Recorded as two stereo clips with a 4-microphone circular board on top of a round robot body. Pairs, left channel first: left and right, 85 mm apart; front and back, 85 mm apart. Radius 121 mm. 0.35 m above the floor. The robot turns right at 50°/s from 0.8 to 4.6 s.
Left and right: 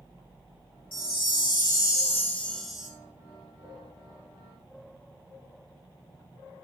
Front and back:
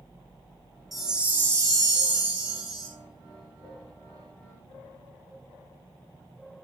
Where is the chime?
90° left, 2.5 m; by 2.9 s 170° right, 2.5 m.